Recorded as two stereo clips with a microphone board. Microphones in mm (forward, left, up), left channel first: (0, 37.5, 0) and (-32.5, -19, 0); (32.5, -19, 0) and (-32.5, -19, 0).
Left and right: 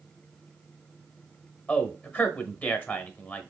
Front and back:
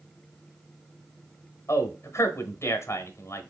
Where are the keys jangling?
No keys jangling in this recording.